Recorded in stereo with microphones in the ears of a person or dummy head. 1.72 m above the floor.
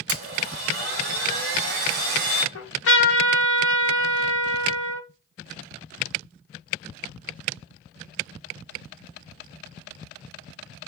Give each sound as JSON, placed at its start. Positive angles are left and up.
{"t": 0.1, "sound": "a blender", "side_deg": -60, "distance_m": 0.9}
{"t": 2.5, "sound": "a trumpet", "side_deg": 85, "distance_m": 0.8}